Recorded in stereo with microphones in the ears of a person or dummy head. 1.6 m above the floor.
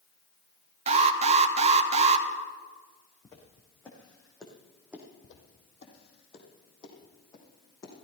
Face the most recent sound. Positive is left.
turn(degrees=20)  # may be behind; listen again after turning